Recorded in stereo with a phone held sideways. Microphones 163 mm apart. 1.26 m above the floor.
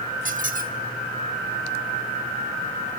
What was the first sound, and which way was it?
A squeak, 60° right (ahead or behind).